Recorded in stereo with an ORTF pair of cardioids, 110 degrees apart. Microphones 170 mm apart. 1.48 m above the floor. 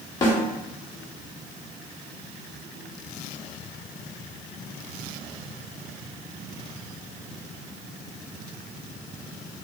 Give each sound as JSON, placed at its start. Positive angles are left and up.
{"t": 0.2, "sound": "a snare drum", "azimuth_deg": 25, "distance_m": 1.1}